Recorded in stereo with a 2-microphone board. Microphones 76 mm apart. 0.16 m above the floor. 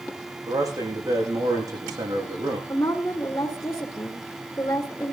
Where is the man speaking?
50° right (ahead or behind), 9.5 m.